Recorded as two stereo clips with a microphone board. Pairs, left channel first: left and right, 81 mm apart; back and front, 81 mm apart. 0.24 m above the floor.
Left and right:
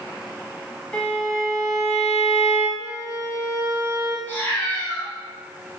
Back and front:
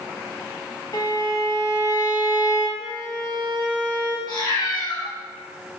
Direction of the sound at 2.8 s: 30° right.